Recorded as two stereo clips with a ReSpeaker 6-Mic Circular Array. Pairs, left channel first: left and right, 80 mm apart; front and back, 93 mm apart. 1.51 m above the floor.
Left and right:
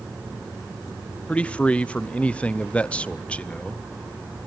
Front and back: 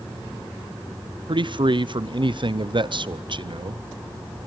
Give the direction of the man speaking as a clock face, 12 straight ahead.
7 o'clock.